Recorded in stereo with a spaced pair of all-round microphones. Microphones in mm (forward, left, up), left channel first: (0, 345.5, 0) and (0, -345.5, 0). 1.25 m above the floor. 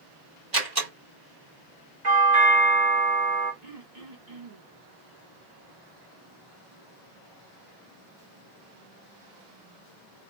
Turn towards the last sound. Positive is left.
turn(degrees=-70)  # may be behind; listen again after turning